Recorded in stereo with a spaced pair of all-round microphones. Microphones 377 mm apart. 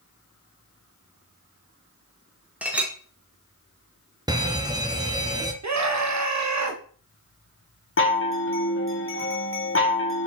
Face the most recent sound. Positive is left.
turn(degrees=35)  # may be behind; listen again after turning